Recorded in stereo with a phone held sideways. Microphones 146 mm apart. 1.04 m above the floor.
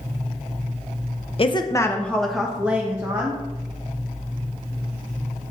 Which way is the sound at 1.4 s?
40° left (ahead or behind).